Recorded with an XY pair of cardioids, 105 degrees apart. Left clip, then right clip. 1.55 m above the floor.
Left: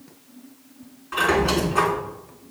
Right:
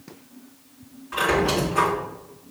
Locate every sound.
1.1 s a squeak: 20° left, 3 m